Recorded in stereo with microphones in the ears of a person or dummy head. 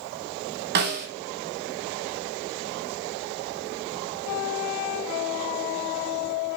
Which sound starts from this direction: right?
A snare drum, at 0.8 s.